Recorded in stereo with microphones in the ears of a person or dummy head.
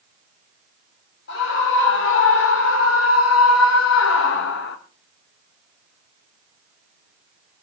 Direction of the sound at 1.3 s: 65° left (ahead or behind).